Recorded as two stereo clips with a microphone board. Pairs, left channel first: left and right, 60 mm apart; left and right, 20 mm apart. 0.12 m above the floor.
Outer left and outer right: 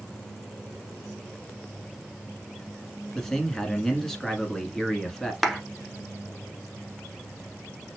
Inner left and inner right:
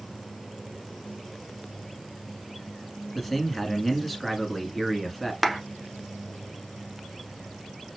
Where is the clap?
Centre (ahead or behind), 0.9 m.